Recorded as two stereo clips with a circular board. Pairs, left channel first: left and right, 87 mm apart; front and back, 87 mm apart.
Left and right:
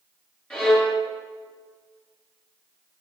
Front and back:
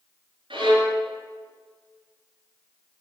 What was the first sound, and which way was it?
A violin, 165° left.